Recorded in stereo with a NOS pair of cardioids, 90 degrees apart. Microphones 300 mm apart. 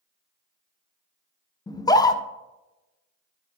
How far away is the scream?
About 0.7 m.